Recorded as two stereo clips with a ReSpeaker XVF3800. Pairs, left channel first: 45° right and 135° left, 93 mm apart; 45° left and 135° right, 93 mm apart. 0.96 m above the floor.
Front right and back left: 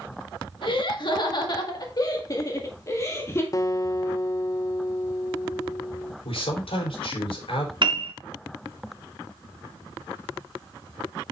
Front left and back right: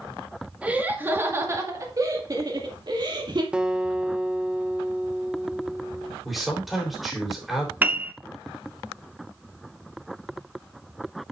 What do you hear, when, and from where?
0.6 s laughter: 60° right, 1.8 m; by 3.4 s 105° right, 2.5 m
3.5 s a guitar: 60° right, 0.7 m
6.2 s a man speaking: 45° right, 3.5 m
7.8 s a piano: 155° left, 0.8 m